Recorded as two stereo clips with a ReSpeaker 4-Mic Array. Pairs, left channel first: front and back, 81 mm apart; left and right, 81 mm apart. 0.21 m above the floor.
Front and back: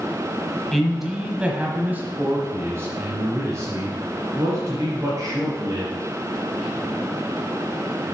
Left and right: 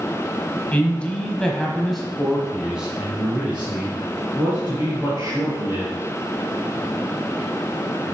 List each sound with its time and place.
0.7 s a man speaking: 85° left, 1.2 m; by 6.0 s 150° right, 2.5 m